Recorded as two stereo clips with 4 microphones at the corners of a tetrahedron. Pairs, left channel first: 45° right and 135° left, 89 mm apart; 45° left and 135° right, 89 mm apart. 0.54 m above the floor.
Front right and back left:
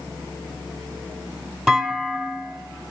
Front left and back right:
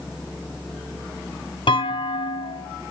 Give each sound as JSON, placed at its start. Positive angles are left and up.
{"t": 1.7, "sound": "a clunk", "azimuth_deg": 40, "distance_m": 4.5}